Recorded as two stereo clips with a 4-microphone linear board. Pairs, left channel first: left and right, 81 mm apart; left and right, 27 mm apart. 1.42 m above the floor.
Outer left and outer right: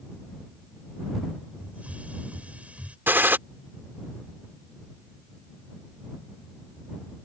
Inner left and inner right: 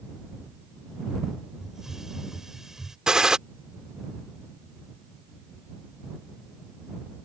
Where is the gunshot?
25° right (ahead or behind).